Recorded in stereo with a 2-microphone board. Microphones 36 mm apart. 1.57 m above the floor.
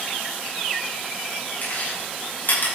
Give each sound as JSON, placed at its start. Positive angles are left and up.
{"t": 1.6, "sound": "chewing", "side_deg": 60, "distance_m": 6.0}